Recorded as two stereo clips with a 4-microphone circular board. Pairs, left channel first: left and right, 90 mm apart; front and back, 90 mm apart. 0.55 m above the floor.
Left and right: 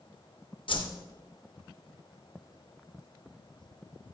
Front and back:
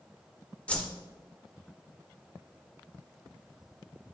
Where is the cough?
No cough in this recording.